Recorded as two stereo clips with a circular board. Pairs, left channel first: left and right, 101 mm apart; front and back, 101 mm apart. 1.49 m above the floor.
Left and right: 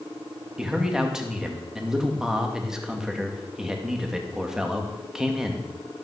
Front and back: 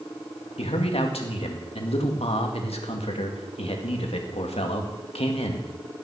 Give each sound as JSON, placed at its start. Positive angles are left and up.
{"t": 0.6, "sound": "a man speaking", "azimuth_deg": -5, "distance_m": 2.0}